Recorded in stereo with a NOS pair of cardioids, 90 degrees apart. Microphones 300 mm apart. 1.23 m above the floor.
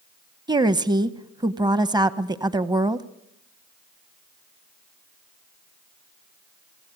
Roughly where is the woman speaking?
Ahead.